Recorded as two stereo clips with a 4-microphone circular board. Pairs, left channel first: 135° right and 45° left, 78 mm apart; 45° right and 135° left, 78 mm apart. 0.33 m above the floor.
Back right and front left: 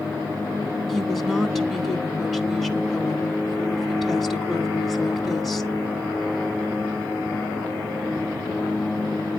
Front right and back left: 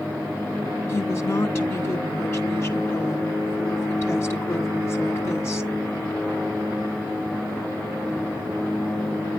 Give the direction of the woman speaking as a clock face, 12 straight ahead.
2 o'clock.